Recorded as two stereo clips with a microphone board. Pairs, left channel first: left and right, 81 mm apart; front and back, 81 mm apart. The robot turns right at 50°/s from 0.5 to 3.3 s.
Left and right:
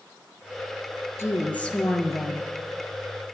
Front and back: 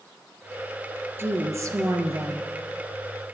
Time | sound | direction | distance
1.2 | a woman speaking | 135° left | 2.0 m